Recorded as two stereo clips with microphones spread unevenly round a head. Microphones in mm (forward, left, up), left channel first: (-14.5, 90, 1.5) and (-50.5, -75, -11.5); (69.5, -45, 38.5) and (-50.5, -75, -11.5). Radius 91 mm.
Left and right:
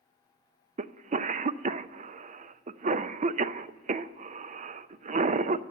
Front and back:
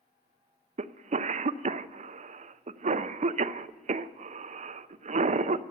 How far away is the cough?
About 0.5 m.